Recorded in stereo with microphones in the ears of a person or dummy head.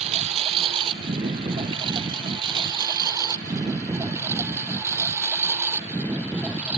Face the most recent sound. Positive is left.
turn(degrees=-5)  # may be behind; listen again after turning